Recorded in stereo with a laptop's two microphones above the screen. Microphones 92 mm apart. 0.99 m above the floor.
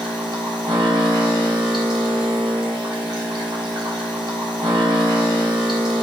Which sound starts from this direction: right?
A machine running, at 0.0 s.